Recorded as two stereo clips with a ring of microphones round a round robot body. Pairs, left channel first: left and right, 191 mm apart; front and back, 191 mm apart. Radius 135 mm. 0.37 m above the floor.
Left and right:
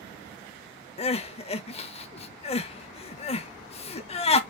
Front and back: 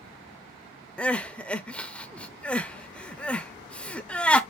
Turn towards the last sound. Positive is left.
turn(degrees=80)